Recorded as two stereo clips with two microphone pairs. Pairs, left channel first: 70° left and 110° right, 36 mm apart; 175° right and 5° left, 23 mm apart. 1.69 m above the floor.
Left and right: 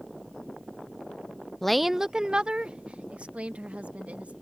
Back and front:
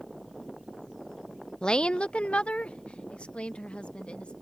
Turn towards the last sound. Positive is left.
turn(degrees=-155)